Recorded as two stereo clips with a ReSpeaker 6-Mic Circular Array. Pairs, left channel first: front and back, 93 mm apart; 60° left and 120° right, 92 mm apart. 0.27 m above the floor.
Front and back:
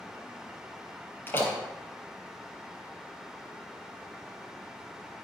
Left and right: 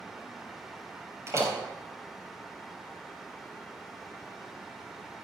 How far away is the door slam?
About 4 m.